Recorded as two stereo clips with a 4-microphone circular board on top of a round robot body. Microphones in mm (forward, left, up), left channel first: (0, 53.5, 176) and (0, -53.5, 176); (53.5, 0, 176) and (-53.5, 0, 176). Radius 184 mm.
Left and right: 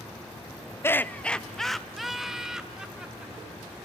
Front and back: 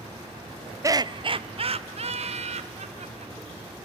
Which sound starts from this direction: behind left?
Laughter, at 0.8 s.